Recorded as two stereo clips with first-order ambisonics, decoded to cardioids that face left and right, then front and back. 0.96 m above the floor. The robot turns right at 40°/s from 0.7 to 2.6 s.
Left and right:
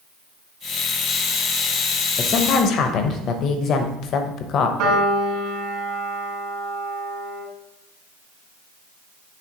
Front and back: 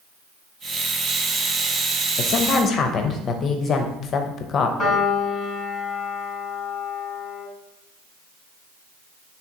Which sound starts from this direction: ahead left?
A woman speaking, at 2.2 s.